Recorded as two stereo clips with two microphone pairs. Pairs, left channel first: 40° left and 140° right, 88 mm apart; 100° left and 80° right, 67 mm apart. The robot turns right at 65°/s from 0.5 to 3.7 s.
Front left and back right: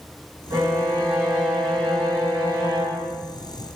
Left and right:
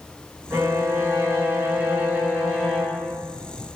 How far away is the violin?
About 2.0 m.